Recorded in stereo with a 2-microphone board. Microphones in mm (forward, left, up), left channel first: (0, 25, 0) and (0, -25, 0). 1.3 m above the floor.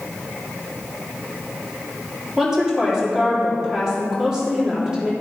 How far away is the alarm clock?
I don't hear an alarm clock.